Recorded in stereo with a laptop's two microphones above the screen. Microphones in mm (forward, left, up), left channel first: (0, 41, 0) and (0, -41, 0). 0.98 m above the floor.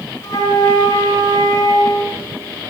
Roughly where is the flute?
Left.